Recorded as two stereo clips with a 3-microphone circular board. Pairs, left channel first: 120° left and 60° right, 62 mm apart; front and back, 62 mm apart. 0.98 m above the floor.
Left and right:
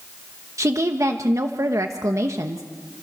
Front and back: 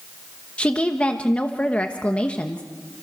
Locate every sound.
0.6 s a woman speaking: 65° right, 1.1 m